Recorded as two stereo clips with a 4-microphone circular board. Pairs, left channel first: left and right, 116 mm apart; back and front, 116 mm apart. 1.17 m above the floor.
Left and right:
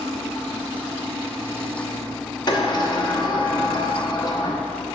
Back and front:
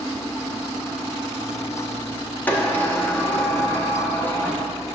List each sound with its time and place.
2.5 s a sliding door: 110° left, 0.7 m